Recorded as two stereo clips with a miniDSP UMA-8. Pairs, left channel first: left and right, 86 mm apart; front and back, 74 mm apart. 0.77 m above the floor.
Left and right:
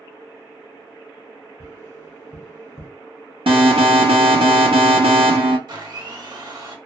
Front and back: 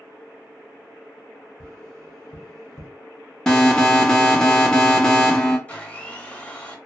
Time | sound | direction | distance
1.6 | tapping | 30° left | 1.3 m
3.5 | an alarm | 80° right | 0.8 m
5.7 | a blender | 70° right | 0.8 m